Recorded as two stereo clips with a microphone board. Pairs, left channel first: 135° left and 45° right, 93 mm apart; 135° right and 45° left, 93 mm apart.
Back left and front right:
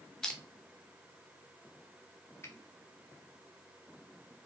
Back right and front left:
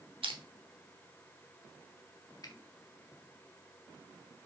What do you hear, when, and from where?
0.2 s crushing: 50° left, 0.7 m
2.4 s a finger snap: 170° right, 0.8 m